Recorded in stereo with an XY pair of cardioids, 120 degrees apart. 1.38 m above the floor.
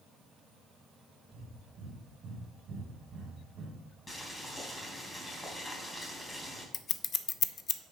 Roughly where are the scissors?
Ahead left.